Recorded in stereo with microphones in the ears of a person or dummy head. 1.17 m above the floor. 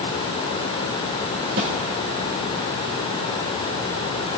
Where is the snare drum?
70° right (ahead or behind), 2 m.